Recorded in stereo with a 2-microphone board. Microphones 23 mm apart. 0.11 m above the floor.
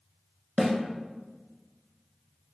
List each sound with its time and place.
0.6 s a snare drum: 25° right (ahead or behind), 0.7 m